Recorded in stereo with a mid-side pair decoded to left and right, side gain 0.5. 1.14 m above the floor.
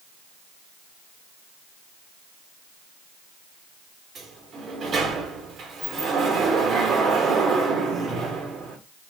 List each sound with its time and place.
4.2 s a sliding door: 45° right, 1.1 m